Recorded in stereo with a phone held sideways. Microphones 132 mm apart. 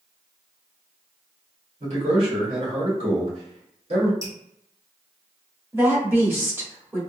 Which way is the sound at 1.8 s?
50° right (ahead or behind).